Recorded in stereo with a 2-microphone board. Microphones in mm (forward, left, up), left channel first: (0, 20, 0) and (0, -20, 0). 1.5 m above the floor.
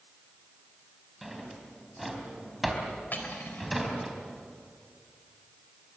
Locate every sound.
1.2 s a drawer: centre (ahead or behind), 3.5 m
3.1 s cutlery clinking: 50° left (ahead or behind), 4 m